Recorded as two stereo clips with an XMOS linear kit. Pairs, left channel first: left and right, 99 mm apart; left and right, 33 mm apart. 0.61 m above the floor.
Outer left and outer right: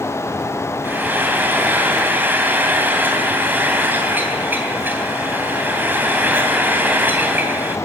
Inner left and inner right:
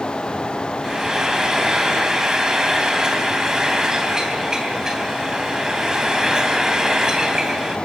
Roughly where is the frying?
Centre.